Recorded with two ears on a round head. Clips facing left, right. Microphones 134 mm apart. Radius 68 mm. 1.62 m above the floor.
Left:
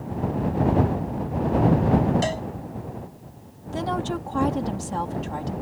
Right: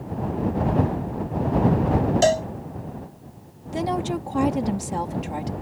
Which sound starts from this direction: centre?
A woman speaking, at 3.7 s.